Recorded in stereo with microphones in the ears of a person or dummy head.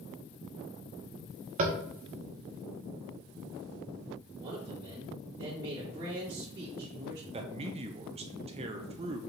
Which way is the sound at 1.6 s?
40° right (ahead or behind).